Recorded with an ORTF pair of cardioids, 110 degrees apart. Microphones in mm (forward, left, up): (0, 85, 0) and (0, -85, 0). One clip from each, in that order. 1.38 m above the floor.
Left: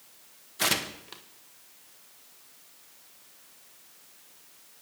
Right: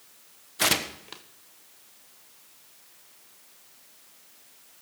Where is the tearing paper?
15° right, 1.3 m.